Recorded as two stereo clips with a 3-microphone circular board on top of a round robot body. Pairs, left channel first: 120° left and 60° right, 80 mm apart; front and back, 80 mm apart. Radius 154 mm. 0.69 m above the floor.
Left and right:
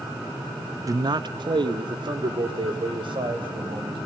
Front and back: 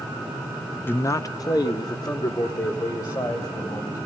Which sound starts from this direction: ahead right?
A man speaking, at 0.9 s.